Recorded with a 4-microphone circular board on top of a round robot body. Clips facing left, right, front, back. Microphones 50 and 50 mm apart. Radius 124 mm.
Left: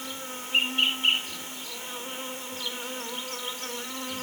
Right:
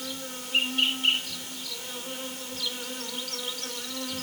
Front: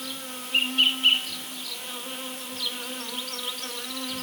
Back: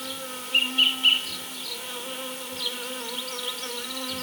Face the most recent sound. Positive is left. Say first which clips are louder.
# even, back 1 dB
turn(degrees=95)